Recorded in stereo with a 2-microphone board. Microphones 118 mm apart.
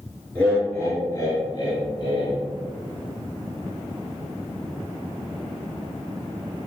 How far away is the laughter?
About 1.2 m.